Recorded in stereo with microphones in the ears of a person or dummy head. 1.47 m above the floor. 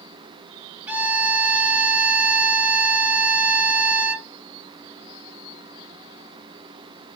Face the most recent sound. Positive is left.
turn(degrees=-10)  # may be behind; listen again after turning